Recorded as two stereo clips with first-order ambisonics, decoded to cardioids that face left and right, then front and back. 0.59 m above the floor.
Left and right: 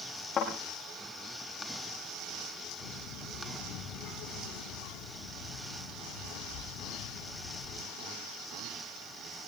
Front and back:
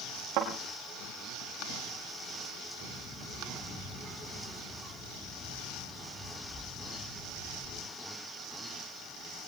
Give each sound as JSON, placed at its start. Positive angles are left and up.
{"t": 0.4, "sound": "a thud", "azimuth_deg": 150, "distance_m": 6.0}
{"t": 2.8, "sound": "a child speaking", "azimuth_deg": 80, "distance_m": 5.5}